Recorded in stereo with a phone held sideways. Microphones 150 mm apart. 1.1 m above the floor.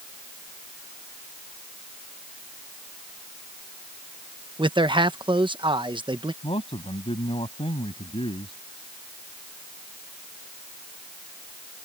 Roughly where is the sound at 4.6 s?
Right.